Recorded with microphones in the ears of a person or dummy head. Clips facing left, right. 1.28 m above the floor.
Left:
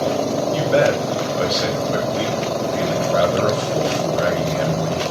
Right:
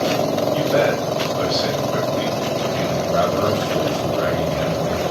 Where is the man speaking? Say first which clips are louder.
Left 3 dB; 25° left (ahead or behind), 1.1 m.